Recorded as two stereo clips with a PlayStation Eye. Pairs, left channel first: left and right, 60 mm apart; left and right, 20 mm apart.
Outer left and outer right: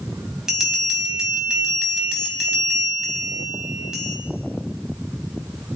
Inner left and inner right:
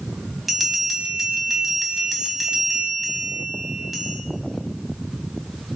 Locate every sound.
0.5 s a bell: 10° right (ahead or behind), 2 m